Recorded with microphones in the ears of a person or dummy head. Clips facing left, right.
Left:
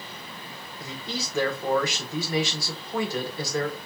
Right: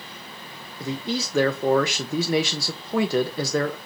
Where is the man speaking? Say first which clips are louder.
Right 8 dB; 60° right (ahead or behind), 0.7 m.